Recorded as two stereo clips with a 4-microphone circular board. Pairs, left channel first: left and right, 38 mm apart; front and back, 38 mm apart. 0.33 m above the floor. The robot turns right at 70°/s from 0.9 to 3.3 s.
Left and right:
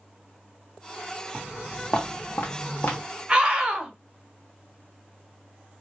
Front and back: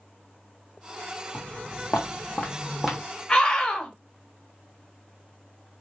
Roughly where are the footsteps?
Ahead.